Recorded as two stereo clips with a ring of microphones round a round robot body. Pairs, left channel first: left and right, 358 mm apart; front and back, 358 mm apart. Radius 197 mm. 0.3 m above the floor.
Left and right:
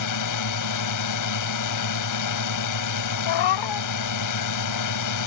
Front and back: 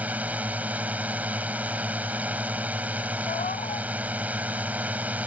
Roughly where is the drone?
Left.